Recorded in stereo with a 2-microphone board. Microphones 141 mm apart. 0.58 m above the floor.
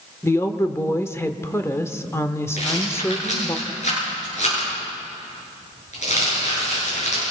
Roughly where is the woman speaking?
Centre.